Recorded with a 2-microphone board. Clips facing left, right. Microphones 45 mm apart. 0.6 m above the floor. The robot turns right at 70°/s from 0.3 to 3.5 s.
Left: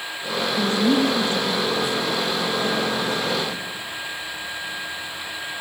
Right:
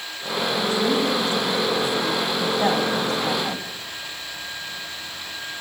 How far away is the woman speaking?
About 5 m.